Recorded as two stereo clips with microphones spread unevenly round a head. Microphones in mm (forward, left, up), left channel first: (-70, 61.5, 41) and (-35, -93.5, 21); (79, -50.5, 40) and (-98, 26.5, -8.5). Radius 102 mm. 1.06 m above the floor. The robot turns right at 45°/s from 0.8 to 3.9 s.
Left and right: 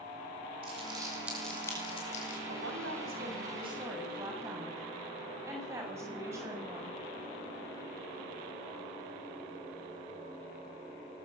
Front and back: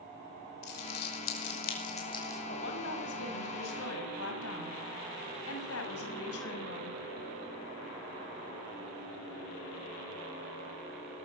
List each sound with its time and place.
0.6 s crumpling: 15° right, 5.5 m; by 2.4 s 55° left, 5.5 m
2.5 s a woman speaking: 65° right, 6.5 m; by 7.0 s straight ahead, 6.5 m